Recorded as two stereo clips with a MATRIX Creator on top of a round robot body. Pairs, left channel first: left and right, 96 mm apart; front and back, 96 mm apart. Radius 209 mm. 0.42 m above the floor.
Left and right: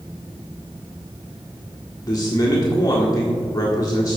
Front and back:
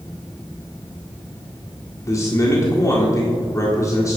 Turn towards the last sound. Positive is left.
turn(degrees=45)